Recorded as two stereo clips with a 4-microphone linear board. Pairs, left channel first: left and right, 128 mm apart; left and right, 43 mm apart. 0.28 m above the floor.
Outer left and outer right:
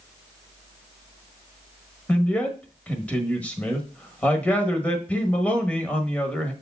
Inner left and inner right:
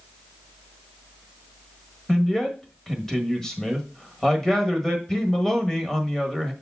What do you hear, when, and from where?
2.1 s a man speaking: 10° left (ahead or behind), 1.4 m